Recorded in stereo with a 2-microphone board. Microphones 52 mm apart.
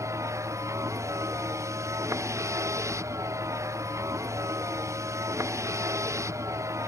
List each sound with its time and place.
0.0 s a vehicle: 75° right (ahead or behind)